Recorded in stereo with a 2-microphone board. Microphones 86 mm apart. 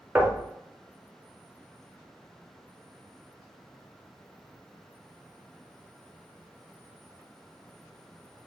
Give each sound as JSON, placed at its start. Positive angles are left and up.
{"t": 0.1, "sound": "knocking", "side_deg": -20, "distance_m": 0.8}